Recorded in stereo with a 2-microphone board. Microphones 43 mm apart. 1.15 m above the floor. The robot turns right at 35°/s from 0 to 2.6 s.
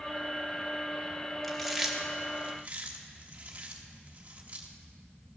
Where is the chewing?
10° left (ahead or behind), 1.1 m; by 4.7 s 30° right (ahead or behind), 1.1 m.